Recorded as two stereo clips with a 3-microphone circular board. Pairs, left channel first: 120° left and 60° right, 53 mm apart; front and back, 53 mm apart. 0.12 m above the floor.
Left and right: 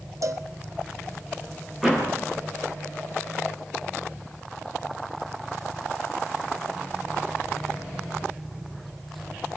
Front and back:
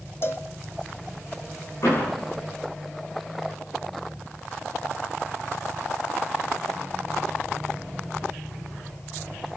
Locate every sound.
0.2 s a cowbell: 45° right, 1.1 m
1.8 s a door slam: 30° left, 8 m